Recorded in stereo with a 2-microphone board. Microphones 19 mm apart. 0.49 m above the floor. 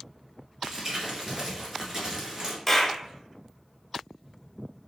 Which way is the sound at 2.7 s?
15° left (ahead or behind).